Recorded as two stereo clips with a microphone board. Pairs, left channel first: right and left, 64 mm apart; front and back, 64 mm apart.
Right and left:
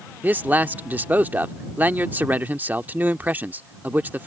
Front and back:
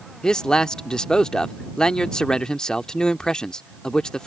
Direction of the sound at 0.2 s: 65° left.